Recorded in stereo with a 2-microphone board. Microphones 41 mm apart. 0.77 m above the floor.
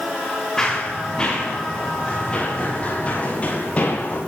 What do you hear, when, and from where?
0.6 s running footsteps: 15° left (ahead or behind), 8.5 m; by 4.2 s 40° left (ahead or behind), 11.5 m